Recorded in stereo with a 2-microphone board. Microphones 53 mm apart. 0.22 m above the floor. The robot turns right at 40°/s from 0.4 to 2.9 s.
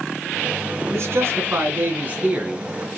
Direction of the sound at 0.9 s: 85° right.